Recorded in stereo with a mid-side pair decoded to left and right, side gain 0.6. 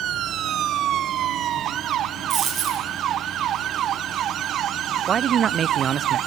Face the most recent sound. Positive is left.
turn(degrees=-45)